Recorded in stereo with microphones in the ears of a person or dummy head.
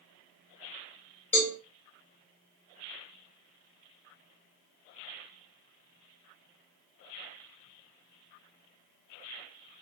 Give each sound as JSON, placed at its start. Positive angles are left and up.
{"t": 1.3, "sound": "a cowbell", "side_deg": 35, "distance_m": 1.3}